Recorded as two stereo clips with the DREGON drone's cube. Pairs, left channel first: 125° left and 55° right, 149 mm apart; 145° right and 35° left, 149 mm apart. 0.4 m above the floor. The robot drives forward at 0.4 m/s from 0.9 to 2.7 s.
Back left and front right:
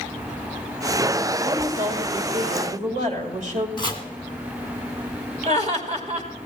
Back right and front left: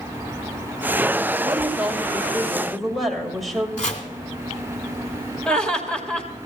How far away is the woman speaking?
About 2.5 m.